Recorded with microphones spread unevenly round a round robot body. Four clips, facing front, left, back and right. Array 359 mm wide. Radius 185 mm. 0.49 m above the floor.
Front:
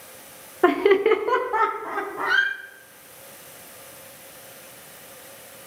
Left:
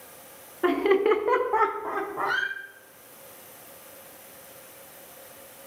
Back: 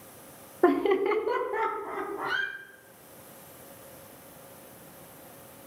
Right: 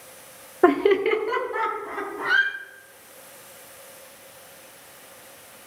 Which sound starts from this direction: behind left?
A squeak, at 2.2 s.